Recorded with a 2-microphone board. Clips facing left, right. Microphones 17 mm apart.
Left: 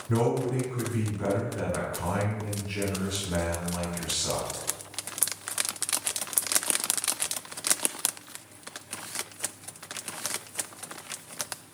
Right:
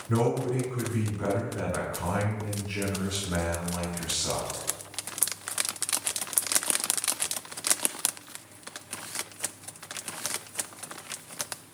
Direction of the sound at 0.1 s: 10° right (ahead or behind).